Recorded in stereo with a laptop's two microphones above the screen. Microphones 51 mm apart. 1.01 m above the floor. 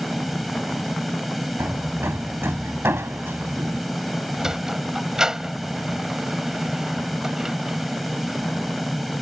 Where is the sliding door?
10° right (ahead or behind).